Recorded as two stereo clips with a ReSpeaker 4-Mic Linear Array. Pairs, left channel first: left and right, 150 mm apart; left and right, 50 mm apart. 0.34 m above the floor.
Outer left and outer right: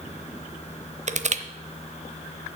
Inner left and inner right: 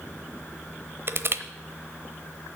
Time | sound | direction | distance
1.1 | crushing | 50° right (ahead or behind) | 0.8 m